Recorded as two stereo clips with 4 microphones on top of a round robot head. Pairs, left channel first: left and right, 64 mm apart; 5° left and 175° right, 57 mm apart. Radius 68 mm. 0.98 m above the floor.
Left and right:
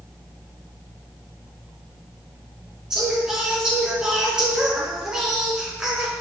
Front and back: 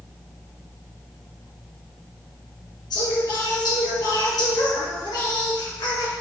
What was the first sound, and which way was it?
Singing, 10° right.